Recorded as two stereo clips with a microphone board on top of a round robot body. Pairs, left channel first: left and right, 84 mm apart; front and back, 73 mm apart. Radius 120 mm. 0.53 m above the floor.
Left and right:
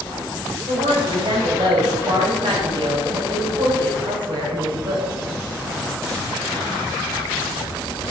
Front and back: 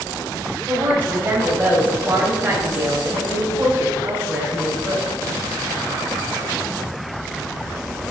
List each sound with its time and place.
0.7 s a woman speaking: 115° right, 3 m